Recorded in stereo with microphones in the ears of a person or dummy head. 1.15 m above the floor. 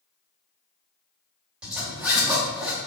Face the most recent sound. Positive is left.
turn(degrees=-10)  # may be behind; listen again after turning